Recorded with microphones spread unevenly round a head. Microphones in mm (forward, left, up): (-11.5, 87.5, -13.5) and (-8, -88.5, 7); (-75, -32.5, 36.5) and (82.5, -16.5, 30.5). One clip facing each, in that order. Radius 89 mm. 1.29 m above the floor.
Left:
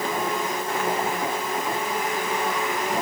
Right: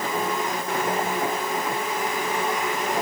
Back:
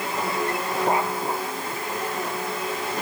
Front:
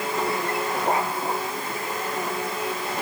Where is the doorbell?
No doorbell in this recording.